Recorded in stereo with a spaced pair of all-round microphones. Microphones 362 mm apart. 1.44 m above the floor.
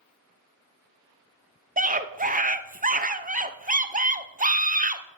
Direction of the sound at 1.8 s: 20° right (ahead or behind).